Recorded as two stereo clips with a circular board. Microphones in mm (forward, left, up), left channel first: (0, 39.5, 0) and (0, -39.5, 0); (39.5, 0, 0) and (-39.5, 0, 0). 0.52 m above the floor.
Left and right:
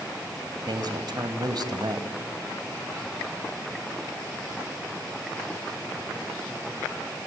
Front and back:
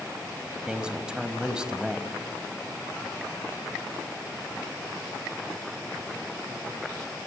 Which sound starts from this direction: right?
A man speaking, at 0.7 s.